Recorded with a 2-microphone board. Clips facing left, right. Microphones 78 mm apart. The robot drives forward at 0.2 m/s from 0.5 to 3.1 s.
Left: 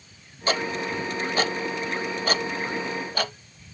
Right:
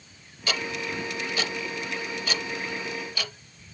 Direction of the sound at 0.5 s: 35° left (ahead or behind).